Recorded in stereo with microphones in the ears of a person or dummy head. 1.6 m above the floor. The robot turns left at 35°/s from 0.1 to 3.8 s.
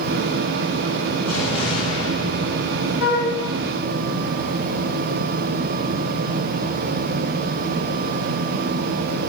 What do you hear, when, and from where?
1.2 s an explosion: 170° left, 5.5 m; by 3.6 s 90° left, 5.5 m
3.0 s a flute: 80° left, 4 m